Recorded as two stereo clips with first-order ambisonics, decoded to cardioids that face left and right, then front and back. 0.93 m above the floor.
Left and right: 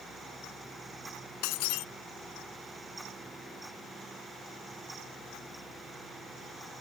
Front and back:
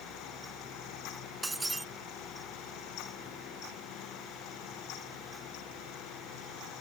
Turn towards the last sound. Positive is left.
turn(degrees=100)